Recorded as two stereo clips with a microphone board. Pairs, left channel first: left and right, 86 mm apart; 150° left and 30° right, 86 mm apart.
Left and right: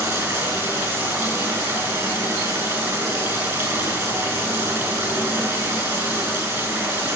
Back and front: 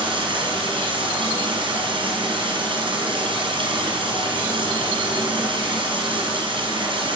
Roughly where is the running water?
Ahead right.